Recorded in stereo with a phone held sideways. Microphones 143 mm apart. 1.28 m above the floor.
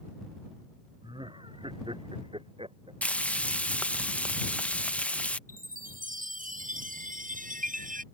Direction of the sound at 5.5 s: 70° right (ahead or behind).